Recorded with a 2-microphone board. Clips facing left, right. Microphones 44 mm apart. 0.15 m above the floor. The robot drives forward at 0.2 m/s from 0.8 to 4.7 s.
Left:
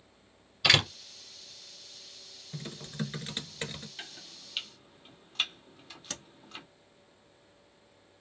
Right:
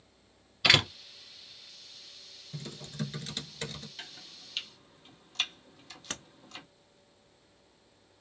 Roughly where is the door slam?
Centre.